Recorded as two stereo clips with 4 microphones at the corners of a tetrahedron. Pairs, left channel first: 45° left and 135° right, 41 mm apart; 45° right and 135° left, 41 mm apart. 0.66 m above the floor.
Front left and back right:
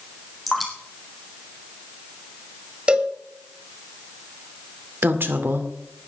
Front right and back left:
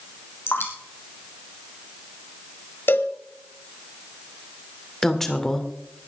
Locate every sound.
0.5 s dripping: 45° right, 3.5 m
2.9 s a cowbell: 75° right, 1.4 m
5.0 s a woman speaking: 130° right, 2 m